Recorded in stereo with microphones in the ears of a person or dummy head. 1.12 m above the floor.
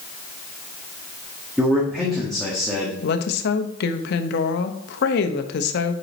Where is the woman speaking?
65° left (ahead or behind), 1.0 m.